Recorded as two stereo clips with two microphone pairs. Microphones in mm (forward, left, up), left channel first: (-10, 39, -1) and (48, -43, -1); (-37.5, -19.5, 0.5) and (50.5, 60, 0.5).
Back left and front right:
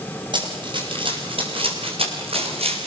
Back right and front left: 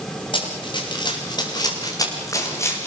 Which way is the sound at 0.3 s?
95° right.